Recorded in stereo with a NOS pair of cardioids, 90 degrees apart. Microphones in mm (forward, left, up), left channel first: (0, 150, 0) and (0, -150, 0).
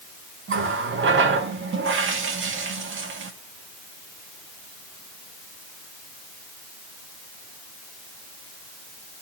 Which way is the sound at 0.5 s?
45° right.